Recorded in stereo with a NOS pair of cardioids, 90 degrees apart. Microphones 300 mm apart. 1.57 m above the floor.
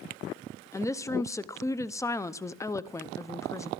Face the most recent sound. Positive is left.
turn(degrees=10)